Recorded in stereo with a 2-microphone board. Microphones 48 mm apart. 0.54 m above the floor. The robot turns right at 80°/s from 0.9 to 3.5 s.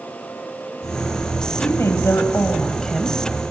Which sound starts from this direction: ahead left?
A woman speaking, at 1.6 s.